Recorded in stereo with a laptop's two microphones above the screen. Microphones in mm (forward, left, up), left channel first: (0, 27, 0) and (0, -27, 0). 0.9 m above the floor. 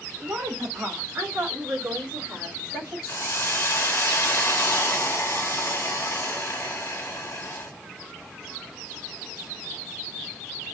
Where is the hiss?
50° left (ahead or behind), 0.9 m.